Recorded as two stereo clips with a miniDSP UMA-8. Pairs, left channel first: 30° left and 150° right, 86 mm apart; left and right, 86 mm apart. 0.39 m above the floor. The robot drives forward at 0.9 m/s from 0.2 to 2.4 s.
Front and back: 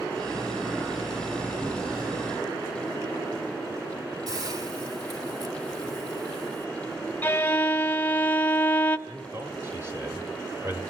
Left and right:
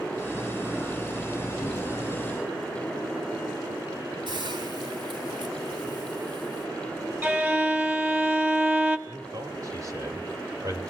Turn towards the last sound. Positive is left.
turn(degrees=-105)